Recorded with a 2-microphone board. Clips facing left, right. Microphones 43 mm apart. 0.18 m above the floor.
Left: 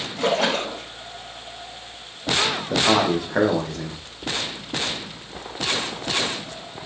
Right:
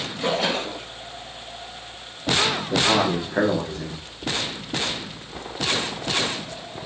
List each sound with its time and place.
0.2 s a splash: 45° left (ahead or behind), 9 m
2.7 s a man speaking: 55° left (ahead or behind), 7.5 m